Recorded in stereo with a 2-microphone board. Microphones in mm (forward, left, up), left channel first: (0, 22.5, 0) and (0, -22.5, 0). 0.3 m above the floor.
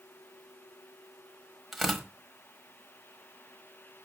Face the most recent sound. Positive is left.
turn(degrees=0)  # may be behind; listen again after turning